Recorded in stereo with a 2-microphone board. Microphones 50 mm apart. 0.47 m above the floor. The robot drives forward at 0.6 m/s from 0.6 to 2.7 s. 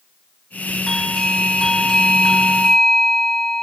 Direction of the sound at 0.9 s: 10° left (ahead or behind).